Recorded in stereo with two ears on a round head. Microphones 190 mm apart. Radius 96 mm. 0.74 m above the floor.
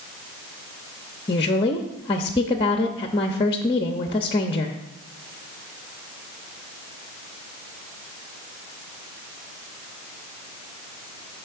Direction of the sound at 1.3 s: 25° left (ahead or behind).